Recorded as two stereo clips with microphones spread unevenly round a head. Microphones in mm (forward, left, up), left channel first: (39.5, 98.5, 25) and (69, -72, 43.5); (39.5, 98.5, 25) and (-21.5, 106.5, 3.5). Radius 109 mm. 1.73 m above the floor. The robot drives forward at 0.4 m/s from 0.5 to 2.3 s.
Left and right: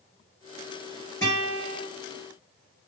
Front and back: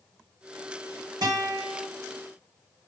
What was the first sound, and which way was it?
A guitar, 175° left.